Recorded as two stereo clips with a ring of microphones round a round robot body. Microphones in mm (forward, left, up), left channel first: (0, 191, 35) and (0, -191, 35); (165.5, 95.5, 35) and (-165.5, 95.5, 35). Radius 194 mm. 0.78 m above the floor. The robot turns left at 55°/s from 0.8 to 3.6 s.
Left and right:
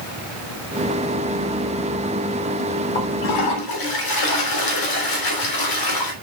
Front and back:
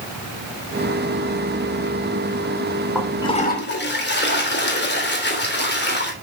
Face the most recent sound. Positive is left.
turn(degrees=60)